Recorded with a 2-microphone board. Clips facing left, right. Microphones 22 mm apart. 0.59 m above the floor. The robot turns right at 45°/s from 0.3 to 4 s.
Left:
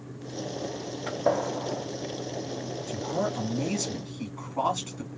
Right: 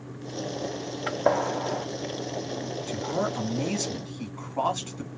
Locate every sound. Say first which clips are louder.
1.1 s a gunshot: right 2 dB; 30° right (ahead or behind), 0.7 m; by 1.9 s 60° right (ahead or behind), 0.7 m
2.9 s a man speaking: right 1 dB; 55° right, 1.6 m; by 5.1 s 5° right, 1.6 m